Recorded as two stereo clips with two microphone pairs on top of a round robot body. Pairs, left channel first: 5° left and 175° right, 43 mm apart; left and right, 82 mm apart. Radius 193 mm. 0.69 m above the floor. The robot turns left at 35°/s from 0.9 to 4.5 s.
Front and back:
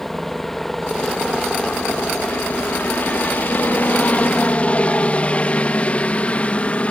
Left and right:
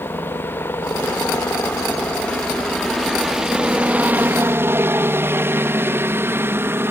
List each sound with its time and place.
0.0 s a helicopter: 90° left; by 6.9 s 35° right